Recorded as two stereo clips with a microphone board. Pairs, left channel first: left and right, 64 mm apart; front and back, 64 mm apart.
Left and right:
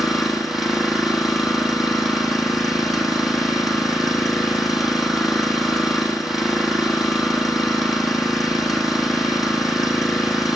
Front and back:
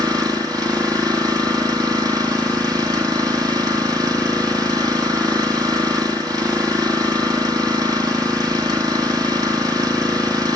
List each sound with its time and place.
0.0 s an engine running: 175° right, 5 m